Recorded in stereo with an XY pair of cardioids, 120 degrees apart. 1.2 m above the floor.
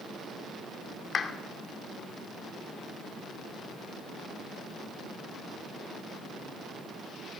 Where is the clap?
40° left, 2.5 m.